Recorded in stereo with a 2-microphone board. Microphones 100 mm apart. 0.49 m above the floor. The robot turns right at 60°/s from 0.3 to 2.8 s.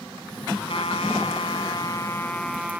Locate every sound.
0.7 s a trumpet: 65° left; by 2.8 s 165° right